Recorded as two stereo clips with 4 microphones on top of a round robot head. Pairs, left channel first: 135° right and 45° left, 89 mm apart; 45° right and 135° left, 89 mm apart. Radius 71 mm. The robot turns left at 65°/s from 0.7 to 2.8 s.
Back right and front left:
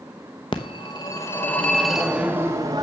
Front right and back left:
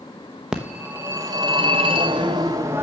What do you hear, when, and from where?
0.5 s a phone ringing: 145° right, 0.8 m; by 2.8 s 80° left, 0.8 m